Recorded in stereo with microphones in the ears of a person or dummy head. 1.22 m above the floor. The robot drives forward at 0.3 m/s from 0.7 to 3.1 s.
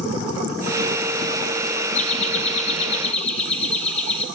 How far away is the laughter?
About 1.2 m.